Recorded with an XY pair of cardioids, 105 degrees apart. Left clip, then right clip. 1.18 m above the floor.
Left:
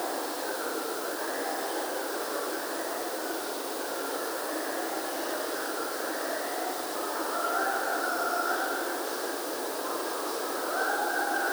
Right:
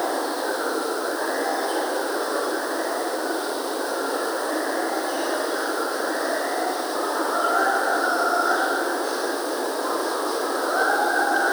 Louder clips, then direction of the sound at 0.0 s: Right 8 dB; 55° right.